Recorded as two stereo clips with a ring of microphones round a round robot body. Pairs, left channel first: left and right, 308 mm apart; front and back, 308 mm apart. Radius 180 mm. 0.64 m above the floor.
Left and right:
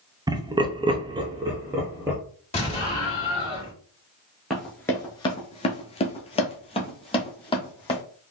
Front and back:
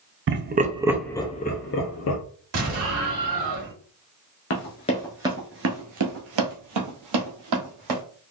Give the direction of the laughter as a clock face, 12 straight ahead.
5 o'clock.